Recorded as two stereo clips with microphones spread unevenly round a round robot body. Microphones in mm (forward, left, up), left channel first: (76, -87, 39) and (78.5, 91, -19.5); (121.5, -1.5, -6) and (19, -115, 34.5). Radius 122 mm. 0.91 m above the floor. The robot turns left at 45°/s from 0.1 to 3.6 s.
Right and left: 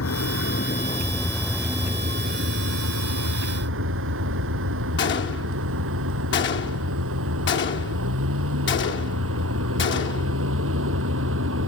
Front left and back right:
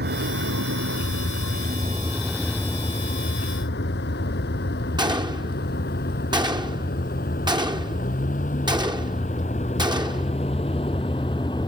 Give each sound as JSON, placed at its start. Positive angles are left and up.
{"t": 0.0, "sound": "a vehicle", "azimuth_deg": -125}
{"t": 5.0, "sound": "a gunshot", "azimuth_deg": -65}